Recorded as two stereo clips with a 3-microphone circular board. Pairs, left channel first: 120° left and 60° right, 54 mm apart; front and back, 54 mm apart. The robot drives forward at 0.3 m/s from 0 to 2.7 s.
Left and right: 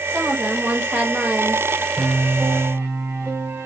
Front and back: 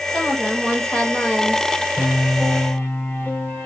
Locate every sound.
0.1 s a woman speaking: 60° right, 1.8 m; by 1.7 s 85° right, 1.7 m
2.0 s a piano: 40° right, 1.3 m; by 3.7 s 50° right, 1.2 m